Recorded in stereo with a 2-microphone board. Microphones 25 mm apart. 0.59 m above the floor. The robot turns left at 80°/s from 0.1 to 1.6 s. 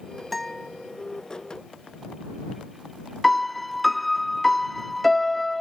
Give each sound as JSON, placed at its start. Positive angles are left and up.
{"t": 0.3, "sound": "a guitar", "azimuth_deg": 180}
{"t": 3.2, "sound": "a piano", "side_deg": 5}